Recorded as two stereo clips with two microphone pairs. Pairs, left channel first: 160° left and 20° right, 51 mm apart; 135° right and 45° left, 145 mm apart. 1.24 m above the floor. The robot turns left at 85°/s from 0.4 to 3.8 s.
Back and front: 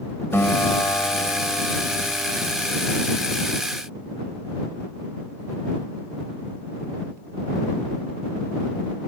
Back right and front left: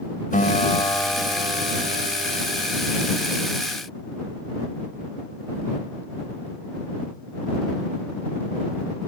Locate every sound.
0.3 s a guitar: 160° right; by 2.8 s 5° right